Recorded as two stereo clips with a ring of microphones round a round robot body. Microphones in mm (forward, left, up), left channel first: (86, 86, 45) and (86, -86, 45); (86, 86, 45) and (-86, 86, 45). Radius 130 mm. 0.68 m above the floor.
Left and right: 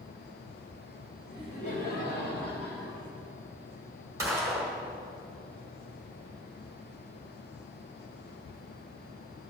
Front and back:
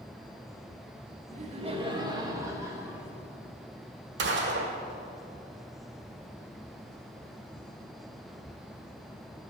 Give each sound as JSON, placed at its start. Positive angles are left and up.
{"t": 1.3, "sound": "laughter", "azimuth_deg": 150, "distance_m": 1.5}
{"t": 4.2, "sound": "a gunshot", "azimuth_deg": -170, "distance_m": 1.2}